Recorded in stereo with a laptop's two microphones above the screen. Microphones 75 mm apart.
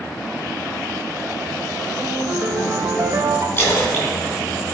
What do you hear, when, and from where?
2.0 s a ringtone: 45° right (ahead or behind), 3 m
3.6 s a splash: 30° left (ahead or behind), 3 m